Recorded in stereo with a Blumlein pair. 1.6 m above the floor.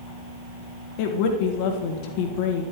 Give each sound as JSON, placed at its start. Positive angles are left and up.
{"t": 1.0, "sound": "a woman speaking", "azimuth_deg": 45, "distance_m": 1.7}